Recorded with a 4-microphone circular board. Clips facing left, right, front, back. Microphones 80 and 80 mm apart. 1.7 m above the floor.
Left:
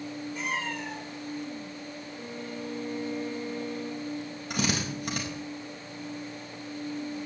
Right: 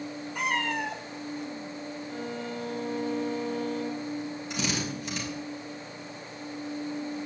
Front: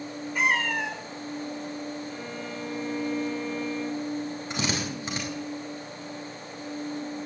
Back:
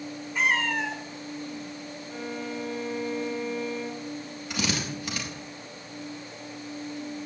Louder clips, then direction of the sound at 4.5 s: Left 3 dB, back 2 dB; 60° left.